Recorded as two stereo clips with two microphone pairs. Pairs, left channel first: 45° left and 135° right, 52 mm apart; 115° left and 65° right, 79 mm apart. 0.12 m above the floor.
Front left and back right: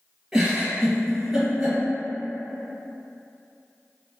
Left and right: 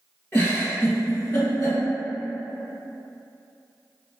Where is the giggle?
140° left, 1.6 m.